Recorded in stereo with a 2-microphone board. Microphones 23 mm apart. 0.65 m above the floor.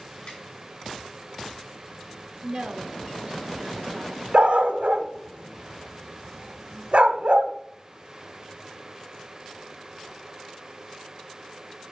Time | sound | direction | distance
0.3 | a snare drum | 50° left (ahead or behind) | 4.5 m
2.4 | a woman speaking | 45° right (ahead or behind) | 0.7 m
4.3 | a dog barking | 55° right (ahead or behind) | 0.8 m